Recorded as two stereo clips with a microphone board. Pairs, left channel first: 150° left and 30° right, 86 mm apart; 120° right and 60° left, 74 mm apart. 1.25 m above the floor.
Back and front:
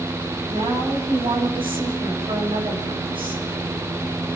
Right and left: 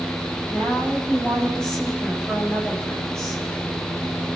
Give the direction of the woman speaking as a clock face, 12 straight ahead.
1 o'clock.